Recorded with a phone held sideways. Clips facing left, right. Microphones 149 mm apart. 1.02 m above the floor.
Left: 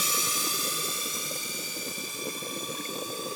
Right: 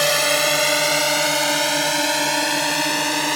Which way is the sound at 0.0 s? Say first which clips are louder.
Right 15 dB; 75° right (ahead or behind).